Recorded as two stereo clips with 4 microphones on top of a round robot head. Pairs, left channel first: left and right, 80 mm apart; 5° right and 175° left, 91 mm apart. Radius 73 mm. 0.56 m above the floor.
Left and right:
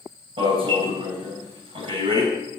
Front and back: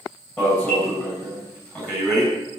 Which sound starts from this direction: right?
An alarm, at 0.4 s.